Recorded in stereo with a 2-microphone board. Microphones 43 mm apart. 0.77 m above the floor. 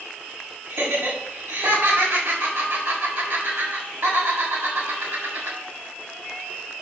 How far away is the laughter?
About 6 m.